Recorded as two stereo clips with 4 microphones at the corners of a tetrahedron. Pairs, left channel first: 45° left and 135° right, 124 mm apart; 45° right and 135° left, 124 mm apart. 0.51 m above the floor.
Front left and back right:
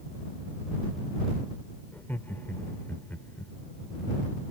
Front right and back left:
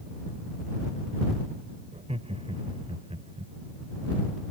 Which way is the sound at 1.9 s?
120° left.